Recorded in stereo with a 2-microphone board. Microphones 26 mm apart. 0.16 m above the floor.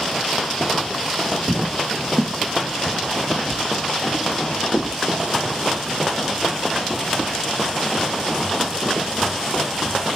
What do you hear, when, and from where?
1.5 s footsteps: 40° right (ahead or behind), 0.5 m; by 5.0 s 45° left (ahead or behind), 2.5 m